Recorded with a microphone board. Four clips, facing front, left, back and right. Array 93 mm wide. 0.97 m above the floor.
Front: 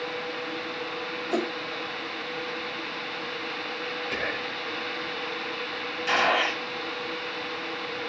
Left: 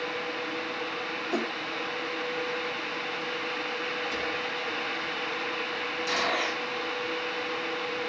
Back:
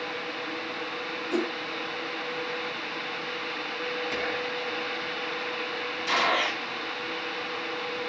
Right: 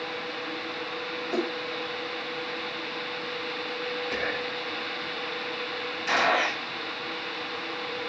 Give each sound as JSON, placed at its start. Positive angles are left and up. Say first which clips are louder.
{"t": 1.3, "sound": "a whoosh", "louder": "right 2 dB, even", "azimuth_deg": 0, "distance_m": 1.7}
{"t": 4.1, "sound": "whispering", "louder": "right 1 dB, even", "azimuth_deg": -35, "distance_m": 5.0}
{"t": 6.1, "sound": "a gunshot", "louder": "right 6 dB, front 2 dB", "azimuth_deg": -35, "distance_m": 6.0}